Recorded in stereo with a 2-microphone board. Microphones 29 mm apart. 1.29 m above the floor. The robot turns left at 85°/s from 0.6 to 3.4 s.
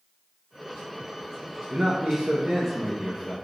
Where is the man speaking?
50° right, 1.0 m; by 3.3 s 170° left, 1.0 m.